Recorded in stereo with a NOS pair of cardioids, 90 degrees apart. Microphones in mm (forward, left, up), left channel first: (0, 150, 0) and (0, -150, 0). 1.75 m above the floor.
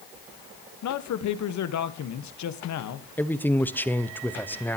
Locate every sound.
0.8 s a man speaking: 70° left, 1.4 m
3.2 s a man speaking: 5° left, 1.0 m